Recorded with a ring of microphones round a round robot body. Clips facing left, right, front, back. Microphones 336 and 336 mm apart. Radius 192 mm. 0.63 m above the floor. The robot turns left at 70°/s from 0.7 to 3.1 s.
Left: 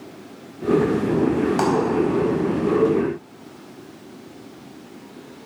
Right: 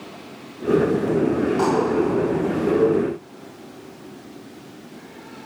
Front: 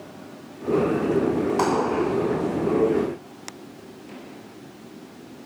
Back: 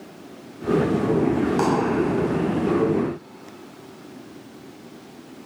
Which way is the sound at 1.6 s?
105° left.